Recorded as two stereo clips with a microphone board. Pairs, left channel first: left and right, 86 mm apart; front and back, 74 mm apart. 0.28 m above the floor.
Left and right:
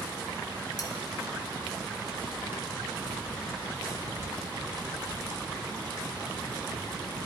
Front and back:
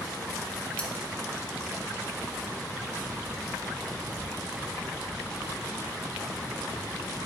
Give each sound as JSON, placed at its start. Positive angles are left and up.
{"t": 0.8, "sound": "cutlery clinking", "azimuth_deg": 70, "distance_m": 0.8}